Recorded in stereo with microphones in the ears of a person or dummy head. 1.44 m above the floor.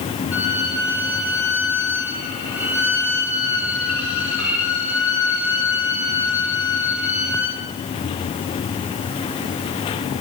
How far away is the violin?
About 8 m.